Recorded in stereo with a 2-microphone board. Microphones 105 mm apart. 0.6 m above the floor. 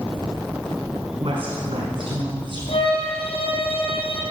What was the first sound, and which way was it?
A woman speaking, 60° right (ahead or behind).